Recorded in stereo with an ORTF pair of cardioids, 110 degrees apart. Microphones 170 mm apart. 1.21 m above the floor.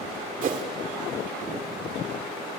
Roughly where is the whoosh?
Ahead right.